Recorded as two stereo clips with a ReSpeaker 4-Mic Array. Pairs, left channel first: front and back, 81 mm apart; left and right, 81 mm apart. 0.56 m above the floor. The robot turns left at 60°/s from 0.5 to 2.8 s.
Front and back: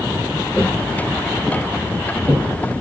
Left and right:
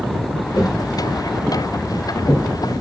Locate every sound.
0.6 s footsteps: 70° left, 1.4 m; by 2.5 s 145° left, 1.6 m